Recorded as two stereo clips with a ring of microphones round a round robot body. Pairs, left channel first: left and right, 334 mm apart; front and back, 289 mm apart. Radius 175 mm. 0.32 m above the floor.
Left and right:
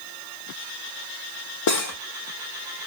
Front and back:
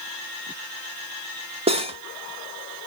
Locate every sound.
1.7 s cutlery clinking: 110° left, 0.7 m